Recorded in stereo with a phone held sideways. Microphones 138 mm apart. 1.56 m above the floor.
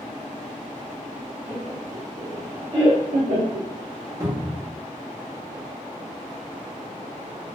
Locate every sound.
1.5 s laughter: 5° left (ahead or behind), 1.3 m; by 3.7 s 80° right, 0.8 m
4.2 s a cupboard door: 20° right (ahead or behind), 1.2 m